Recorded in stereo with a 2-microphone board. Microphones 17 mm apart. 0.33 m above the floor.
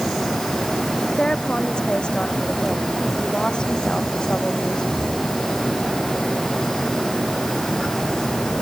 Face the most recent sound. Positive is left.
turn(degrees=55)  # may be behind; listen again after turning